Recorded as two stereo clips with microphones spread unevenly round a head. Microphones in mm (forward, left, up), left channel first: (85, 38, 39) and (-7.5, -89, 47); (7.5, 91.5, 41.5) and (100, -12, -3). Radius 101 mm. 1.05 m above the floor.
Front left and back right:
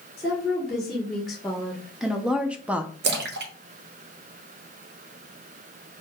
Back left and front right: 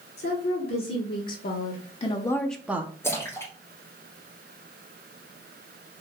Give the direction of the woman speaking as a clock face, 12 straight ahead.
7 o'clock.